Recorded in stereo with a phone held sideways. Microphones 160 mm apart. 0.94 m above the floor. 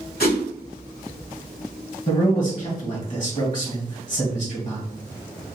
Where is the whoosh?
75° left (ahead or behind), 1.6 m.